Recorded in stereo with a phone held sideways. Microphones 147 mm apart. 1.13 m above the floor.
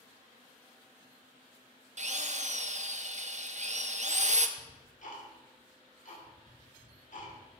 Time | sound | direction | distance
2.0 | a drill | 55° right (ahead or behind) | 0.6 m
4.6 | ticking | 60° left (ahead or behind) | 2.5 m